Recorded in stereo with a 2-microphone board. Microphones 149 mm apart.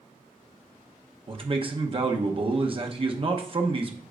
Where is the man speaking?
35° right (ahead or behind), 0.9 m.